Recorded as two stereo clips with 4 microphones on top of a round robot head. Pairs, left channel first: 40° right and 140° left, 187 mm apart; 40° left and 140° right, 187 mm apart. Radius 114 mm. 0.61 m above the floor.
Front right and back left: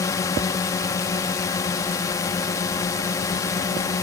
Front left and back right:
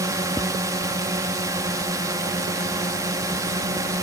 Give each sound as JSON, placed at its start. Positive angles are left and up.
{"t": 0.0, "sound": "a drone", "azimuth_deg": -90}